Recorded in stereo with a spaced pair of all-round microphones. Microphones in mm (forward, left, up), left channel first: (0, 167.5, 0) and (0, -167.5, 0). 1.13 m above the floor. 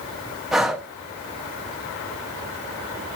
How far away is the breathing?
About 1.5 m.